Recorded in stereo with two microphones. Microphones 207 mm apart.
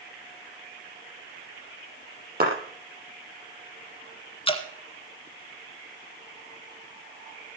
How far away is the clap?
About 6 m.